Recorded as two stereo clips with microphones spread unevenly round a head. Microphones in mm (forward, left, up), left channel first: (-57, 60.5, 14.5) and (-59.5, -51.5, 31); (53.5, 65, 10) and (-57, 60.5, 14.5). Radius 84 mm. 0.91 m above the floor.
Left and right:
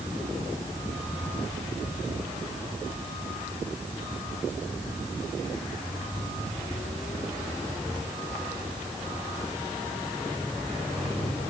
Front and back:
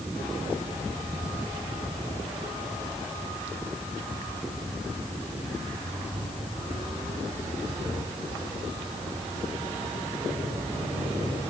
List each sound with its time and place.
Only background noise.